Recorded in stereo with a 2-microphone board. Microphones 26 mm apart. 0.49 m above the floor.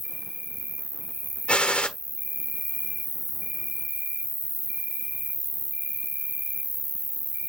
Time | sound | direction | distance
0.0 | an insect | 45° right (ahead or behind) | 1.0 m
1.5 | a gunshot | 40° left (ahead or behind) | 1.2 m